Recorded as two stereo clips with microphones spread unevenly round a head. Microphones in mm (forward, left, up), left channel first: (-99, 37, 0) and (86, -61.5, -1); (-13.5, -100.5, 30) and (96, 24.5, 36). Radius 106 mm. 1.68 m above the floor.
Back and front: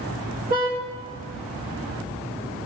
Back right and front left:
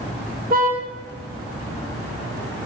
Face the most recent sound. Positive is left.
turn(degrees=25)